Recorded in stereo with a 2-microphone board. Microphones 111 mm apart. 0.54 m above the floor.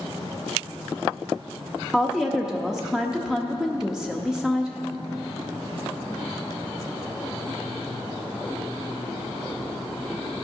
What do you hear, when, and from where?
1.9 s a woman speaking: 5° right (ahead or behind), 0.6 m